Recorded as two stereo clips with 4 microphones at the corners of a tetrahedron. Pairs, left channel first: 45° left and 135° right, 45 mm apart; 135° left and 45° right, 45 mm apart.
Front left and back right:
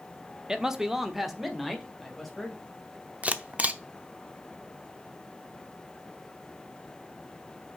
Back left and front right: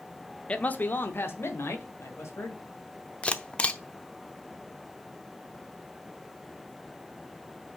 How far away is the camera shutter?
About 0.8 m.